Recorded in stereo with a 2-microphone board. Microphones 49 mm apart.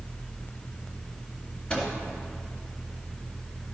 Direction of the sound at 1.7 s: 25° left (ahead or behind).